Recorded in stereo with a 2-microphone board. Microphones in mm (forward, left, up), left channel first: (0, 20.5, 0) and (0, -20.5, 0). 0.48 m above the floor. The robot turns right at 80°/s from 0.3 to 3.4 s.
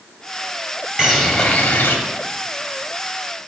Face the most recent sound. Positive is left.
turn(degrees=175)